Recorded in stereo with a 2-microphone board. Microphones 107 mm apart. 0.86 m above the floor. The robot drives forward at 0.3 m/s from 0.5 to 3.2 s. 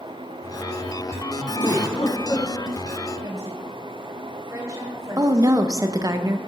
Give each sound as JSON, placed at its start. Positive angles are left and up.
{"t": 1.6, "sound": "a giggle", "side_deg": 40, "distance_m": 3.5}
{"t": 3.2, "sound": "a woman speaking", "side_deg": -35, "distance_m": 2.5}
{"t": 5.2, "sound": "a woman speaking", "side_deg": -30, "distance_m": 0.7}